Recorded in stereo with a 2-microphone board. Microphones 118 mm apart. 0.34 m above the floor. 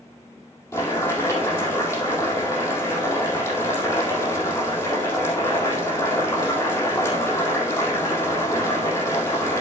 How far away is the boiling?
About 4 m.